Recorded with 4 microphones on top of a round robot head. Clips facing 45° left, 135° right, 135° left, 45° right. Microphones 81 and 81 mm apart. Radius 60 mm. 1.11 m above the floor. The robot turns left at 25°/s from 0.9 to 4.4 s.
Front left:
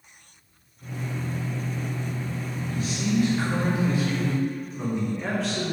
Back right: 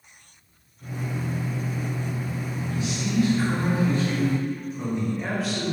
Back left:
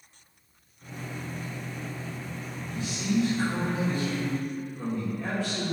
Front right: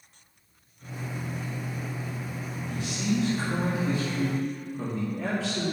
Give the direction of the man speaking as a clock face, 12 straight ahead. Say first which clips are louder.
Front left 2 dB, even; 12 o'clock.